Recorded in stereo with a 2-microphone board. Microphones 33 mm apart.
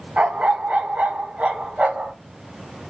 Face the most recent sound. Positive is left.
turn(degrees=-50)  # may be behind; listen again after turning